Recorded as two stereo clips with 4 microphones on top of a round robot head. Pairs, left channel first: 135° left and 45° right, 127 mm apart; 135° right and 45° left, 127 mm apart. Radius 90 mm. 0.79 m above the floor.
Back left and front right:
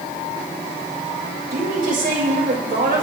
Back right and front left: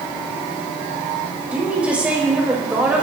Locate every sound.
1.5 s a woman speaking: 35° right, 4.5 m